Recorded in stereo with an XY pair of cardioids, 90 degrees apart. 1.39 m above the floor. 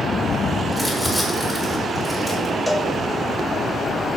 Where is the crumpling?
15° left, 5.5 m.